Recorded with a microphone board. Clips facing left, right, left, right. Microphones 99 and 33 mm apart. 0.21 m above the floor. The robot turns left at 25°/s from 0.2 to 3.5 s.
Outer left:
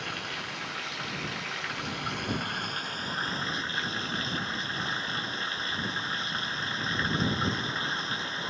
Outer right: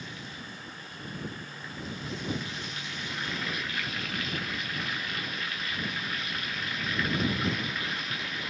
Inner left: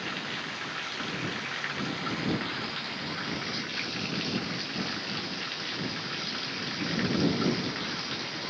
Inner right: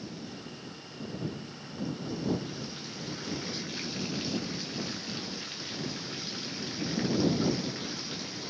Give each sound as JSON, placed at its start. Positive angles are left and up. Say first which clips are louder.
{"t": 0.0, "sound": "running water", "louder": "outer left 5 dB, inner left 8 dB", "azimuth_deg": 115}